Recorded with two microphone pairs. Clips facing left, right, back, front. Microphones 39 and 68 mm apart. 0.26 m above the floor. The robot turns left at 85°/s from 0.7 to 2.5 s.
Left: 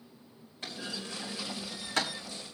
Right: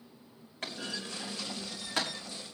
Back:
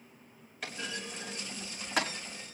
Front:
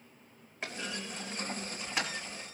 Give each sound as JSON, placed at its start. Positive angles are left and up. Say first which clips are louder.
{"t": 0.6, "sound": "a clunk", "louder": "right 1 dB, even", "azimuth_deg": -65, "distance_m": 4.0}